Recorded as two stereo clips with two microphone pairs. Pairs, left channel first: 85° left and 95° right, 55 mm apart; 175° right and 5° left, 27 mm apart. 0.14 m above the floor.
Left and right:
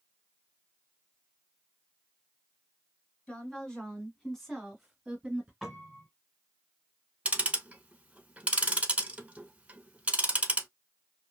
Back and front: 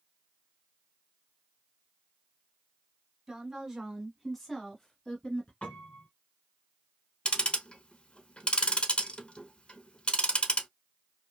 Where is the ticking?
140° right, 0.5 m.